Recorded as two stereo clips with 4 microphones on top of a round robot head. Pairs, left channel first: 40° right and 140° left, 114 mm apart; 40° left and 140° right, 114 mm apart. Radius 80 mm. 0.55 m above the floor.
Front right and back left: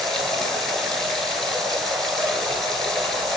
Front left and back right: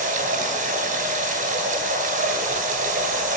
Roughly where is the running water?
Behind right.